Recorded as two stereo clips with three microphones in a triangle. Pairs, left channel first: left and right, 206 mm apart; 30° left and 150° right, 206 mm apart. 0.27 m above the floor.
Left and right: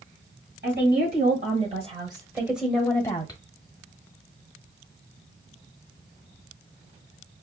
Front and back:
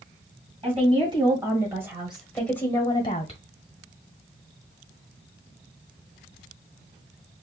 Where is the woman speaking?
95° right, 1.7 m; by 3.4 s 50° left, 1.2 m.